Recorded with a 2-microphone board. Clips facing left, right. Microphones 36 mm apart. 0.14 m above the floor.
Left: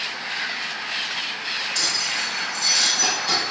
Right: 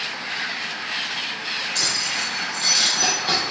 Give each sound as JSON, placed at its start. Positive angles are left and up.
{"t": 1.8, "sound": "keys jangling", "side_deg": -60, "distance_m": 3.0}